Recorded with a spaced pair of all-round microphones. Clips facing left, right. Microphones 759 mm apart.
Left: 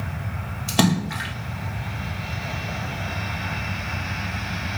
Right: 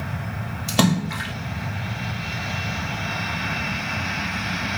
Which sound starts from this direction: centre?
A splash, at 0.7 s.